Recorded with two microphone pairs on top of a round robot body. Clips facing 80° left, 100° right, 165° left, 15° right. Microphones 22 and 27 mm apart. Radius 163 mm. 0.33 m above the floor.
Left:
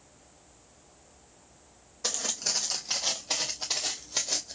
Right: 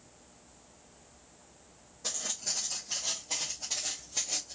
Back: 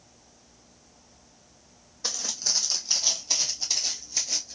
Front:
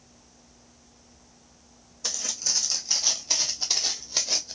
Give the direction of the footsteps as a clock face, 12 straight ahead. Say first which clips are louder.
Left 5 dB, back 1 dB; 8 o'clock.